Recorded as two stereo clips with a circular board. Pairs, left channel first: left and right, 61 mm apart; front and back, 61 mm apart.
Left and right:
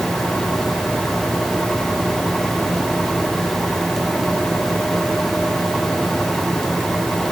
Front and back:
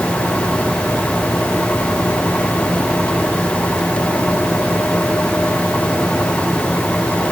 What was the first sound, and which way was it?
Only background noise.